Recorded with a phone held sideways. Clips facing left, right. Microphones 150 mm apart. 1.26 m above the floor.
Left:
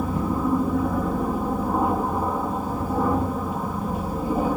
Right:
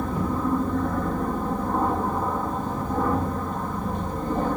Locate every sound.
0.0 s an aircraft: 5° left (ahead or behind)